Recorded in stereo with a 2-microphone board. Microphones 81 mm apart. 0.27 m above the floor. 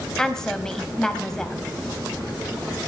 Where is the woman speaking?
5° left (ahead or behind), 1.2 m.